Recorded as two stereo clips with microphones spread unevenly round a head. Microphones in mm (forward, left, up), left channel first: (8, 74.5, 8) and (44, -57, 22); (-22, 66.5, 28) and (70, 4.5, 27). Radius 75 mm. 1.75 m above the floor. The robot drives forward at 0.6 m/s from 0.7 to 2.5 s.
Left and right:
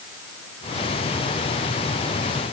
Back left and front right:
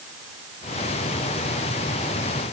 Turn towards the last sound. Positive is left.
No sound to turn to.